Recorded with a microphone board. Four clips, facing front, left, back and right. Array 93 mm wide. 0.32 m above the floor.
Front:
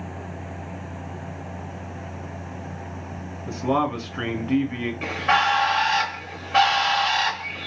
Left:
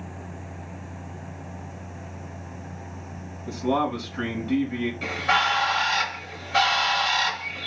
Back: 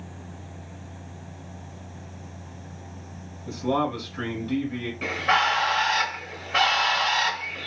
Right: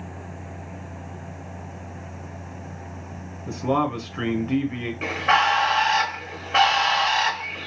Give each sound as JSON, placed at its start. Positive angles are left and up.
{"t": 3.5, "sound": "a man speaking", "azimuth_deg": -30, "distance_m": 1.2}
{"t": 5.0, "sound": "a bird", "azimuth_deg": -85, "distance_m": 1.2}